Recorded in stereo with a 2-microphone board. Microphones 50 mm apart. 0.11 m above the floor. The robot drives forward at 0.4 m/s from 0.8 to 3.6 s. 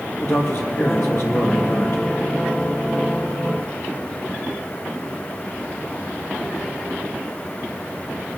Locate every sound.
0.2 s a man speaking: 60° left (ahead or behind), 2.5 m; by 2.0 s 55° left (ahead or behind), 2.5 m